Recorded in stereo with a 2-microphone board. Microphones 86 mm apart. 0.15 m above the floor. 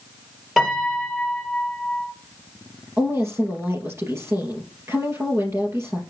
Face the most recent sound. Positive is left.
turn(degrees=-30)  # may be behind; listen again after turning